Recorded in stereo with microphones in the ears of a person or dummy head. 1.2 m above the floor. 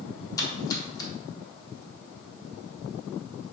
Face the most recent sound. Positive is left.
turn(degrees=20)  # may be behind; listen again after turning